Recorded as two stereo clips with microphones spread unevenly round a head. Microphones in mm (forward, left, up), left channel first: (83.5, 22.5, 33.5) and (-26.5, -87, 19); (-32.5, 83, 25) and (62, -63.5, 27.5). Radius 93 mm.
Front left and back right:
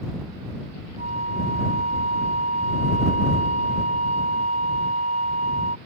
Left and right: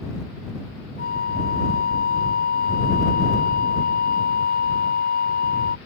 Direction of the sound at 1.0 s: 165° left.